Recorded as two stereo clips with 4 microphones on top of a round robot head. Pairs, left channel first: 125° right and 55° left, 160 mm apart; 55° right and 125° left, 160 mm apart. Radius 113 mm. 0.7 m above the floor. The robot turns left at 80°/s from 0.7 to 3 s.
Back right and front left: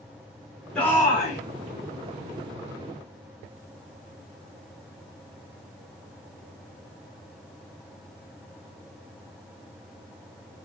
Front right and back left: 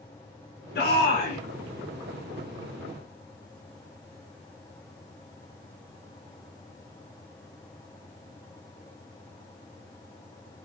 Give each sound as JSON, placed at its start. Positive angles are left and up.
{"t": 0.8, "sound": "a shout", "azimuth_deg": -40, "distance_m": 8.0}